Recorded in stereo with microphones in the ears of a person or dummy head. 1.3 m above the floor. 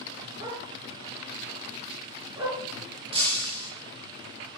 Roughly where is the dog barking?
Right.